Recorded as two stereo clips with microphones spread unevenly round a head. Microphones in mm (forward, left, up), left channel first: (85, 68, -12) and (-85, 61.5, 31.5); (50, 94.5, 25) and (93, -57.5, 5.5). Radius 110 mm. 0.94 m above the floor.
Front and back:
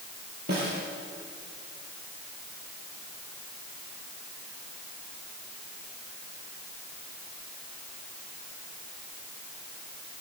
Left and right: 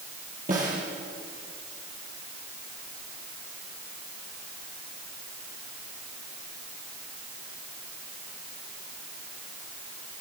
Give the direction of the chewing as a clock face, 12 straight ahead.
I don't hear chewing.